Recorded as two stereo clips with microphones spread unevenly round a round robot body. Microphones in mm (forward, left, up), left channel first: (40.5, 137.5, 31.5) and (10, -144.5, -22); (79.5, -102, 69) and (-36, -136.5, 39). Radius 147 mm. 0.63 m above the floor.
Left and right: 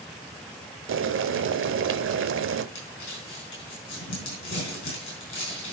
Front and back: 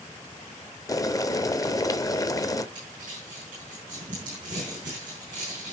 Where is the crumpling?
135° left, 7.5 m.